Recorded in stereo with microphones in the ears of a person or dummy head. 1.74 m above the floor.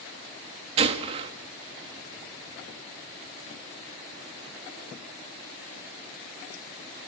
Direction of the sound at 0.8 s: 35° right (ahead or behind).